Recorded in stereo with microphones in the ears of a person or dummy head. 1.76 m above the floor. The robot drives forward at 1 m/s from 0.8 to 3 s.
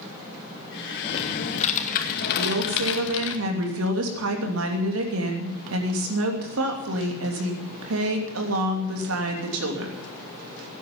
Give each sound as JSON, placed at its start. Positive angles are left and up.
{"t": 1.0, "sound": "typing on a keyboard", "side_deg": 40, "distance_m": 3.0}
{"t": 2.4, "sound": "a woman speaking", "side_deg": -80, "distance_m": 2.5}